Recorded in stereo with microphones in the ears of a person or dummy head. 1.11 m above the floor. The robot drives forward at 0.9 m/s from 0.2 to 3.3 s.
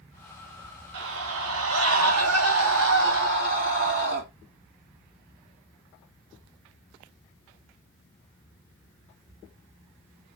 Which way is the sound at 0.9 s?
65° right (ahead or behind).